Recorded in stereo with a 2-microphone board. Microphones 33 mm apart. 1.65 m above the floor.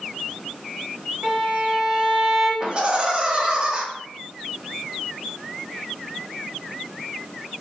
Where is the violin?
15° right (ahead or behind), 1.6 m.